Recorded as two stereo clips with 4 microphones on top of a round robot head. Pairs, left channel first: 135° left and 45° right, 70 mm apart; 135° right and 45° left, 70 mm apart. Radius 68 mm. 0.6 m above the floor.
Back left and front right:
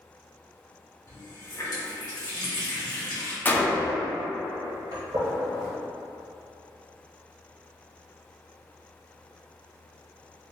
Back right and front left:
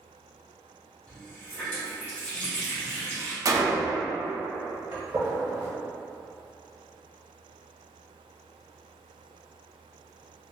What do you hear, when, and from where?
1.1 s a running tap: 160° left, 1.7 m
3.5 s a gunshot: 75° left, 0.6 m
4.9 s a gunshot: 15° right, 0.8 m